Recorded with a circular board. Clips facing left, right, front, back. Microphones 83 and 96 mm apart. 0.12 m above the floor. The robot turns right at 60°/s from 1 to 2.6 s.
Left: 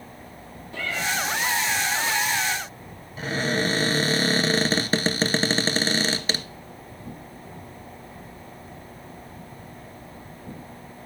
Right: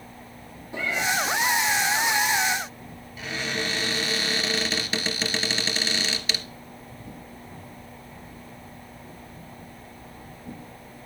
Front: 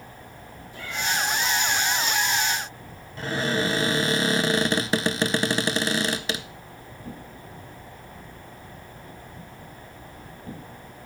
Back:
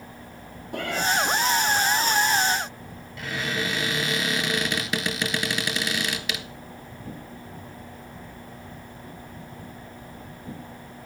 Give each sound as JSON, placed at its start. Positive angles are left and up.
{"t": 0.7, "sound": "a cat meowing", "azimuth_deg": -165, "distance_m": 1.5}
{"t": 3.2, "sound": "a cupboard door", "azimuth_deg": 45, "distance_m": 0.9}